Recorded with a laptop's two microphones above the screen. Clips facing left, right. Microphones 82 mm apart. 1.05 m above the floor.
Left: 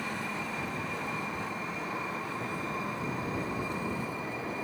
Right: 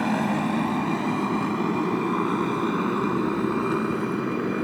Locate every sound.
0.0 s a motorcycle: 75° right (ahead or behind); by 4.6 s 65° right (ahead or behind)